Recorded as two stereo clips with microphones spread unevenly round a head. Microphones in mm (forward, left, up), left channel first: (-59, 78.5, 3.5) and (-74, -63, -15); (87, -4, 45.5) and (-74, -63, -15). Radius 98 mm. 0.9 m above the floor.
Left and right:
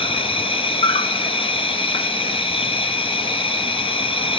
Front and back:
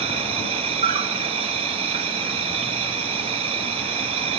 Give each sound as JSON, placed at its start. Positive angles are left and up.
{"t": 0.0, "sound": "an insect", "azimuth_deg": 140, "distance_m": 0.7}